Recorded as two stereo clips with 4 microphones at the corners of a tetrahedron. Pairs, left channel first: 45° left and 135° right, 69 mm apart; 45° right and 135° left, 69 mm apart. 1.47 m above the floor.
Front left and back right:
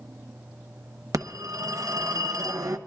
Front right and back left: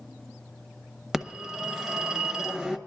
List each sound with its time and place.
1.1 s a phone ringing: 140° right, 0.9 m